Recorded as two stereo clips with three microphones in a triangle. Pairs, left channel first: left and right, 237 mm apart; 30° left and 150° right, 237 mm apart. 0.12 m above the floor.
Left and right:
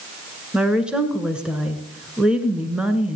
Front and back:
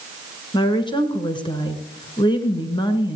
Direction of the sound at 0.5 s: 10° right.